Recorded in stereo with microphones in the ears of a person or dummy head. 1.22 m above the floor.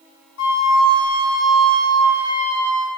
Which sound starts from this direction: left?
A flute, at 0.4 s.